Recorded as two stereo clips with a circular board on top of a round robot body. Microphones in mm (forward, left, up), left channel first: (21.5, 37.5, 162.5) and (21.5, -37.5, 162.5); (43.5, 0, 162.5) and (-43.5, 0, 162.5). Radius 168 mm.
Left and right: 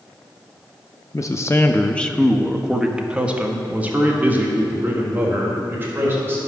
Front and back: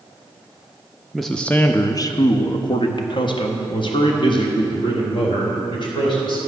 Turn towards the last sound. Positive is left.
turn(degrees=-25)